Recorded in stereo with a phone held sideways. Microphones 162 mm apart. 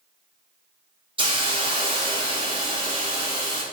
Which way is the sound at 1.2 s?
30° right (ahead or behind).